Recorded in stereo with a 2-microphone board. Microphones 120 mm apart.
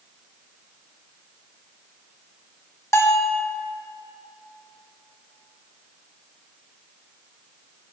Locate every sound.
2.9 s a bell: 20° left (ahead or behind), 0.8 m